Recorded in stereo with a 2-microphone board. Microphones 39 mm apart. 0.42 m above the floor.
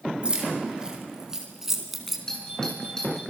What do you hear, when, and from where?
0.2 s keys jangling: 25° right (ahead or behind), 4.5 m; by 2.2 s centre (ahead or behind), 3 m
2.3 s a doorbell: 15° left (ahead or behind), 6 m